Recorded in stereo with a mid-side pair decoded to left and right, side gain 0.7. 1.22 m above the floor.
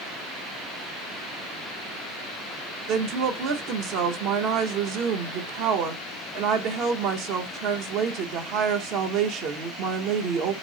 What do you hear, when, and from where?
2.9 s a woman speaking: 60° right, 0.9 m